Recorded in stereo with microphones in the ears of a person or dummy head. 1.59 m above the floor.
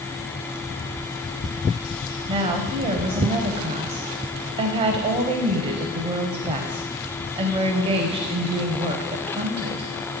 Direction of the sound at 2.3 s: 30° right (ahead or behind).